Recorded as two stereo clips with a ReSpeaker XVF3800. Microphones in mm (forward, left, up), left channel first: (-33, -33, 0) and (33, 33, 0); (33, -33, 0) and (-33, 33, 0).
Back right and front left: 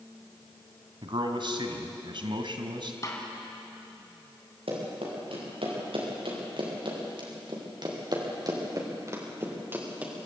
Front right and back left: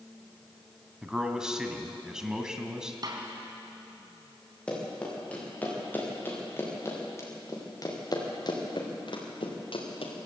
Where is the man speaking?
55° left, 2 m.